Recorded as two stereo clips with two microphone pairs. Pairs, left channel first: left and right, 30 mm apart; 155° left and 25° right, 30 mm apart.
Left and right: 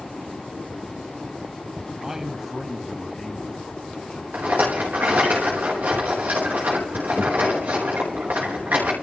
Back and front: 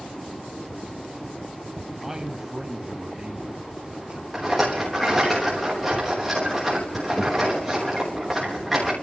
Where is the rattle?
110° right, 4.5 m.